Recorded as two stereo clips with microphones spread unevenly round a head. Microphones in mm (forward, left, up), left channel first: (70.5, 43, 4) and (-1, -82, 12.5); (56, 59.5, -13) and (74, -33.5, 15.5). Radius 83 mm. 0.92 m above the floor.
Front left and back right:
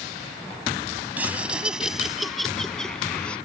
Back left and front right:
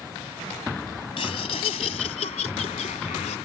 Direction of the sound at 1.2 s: 160° left.